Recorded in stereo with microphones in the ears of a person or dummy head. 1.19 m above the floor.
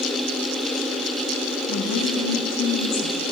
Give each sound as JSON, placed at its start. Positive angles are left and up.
{"t": 1.7, "sound": "a woman speaking", "side_deg": 60, "distance_m": 1.7}